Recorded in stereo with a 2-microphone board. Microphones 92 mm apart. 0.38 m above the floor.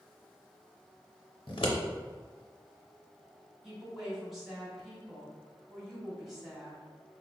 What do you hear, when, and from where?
1.5 s scissors: 65° left (ahead or behind), 0.6 m
3.6 s a woman speaking: centre (ahead or behind), 1.4 m